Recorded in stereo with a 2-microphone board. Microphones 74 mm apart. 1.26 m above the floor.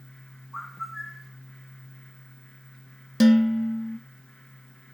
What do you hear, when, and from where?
0.5 s a bird: centre (ahead or behind), 1.1 m
3.2 s dishes clattering: centre (ahead or behind), 0.8 m